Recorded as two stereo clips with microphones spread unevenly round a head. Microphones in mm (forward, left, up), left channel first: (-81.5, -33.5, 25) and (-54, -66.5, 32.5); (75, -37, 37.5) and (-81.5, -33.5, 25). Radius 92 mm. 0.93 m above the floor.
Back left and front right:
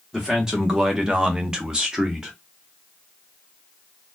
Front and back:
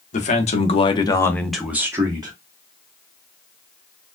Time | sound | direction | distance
0.1 | a man speaking | 40° left | 1.2 m